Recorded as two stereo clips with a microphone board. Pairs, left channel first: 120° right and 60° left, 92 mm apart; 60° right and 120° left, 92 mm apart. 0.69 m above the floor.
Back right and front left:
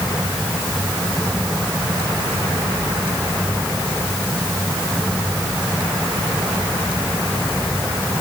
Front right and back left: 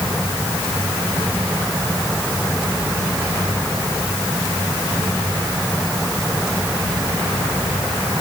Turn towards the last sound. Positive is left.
No sound to turn to.